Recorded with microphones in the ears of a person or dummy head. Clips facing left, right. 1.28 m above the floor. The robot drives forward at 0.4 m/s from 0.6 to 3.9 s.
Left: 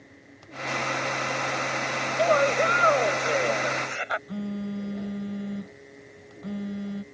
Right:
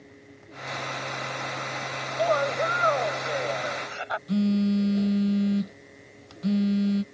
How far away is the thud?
No thud in this recording.